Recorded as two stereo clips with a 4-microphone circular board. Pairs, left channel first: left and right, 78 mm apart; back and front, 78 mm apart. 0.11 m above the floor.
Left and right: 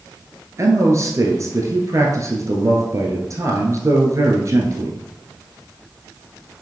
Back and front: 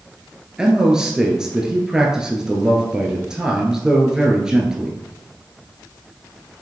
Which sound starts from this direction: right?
A man speaking, at 0.6 s.